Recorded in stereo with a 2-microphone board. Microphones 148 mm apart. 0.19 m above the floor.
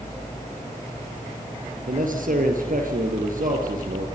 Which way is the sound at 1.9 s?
70° right (ahead or behind).